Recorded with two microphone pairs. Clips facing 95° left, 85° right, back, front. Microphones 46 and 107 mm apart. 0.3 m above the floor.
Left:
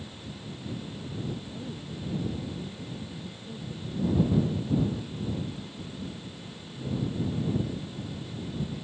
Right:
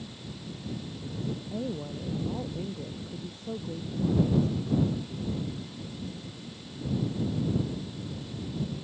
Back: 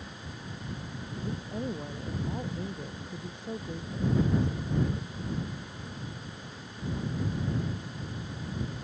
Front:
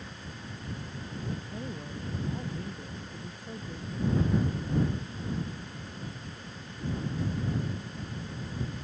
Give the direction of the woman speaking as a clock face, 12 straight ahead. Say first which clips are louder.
Right 5 dB, back 3 dB; 4 o'clock.